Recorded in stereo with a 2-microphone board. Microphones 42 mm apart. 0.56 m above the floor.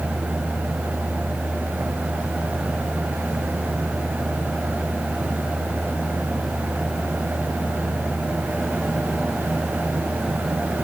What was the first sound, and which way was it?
Only background noise.